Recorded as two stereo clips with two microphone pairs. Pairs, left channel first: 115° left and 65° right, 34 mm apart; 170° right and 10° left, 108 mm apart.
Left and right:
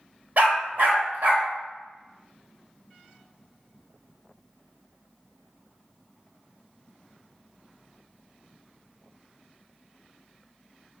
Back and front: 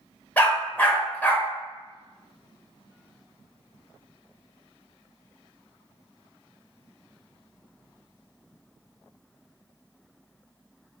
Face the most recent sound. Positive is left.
turn(degrees=-95)